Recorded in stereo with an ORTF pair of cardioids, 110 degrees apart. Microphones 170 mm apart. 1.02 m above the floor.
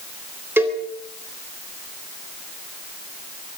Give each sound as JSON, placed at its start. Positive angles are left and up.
{"t": 0.6, "sound": "a cowbell", "azimuth_deg": -15, "distance_m": 3.5}